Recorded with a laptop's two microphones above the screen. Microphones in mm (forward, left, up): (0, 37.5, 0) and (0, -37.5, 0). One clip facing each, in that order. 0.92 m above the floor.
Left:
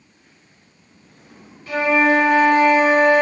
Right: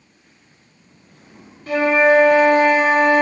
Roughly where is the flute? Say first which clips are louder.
Right 2 dB; right.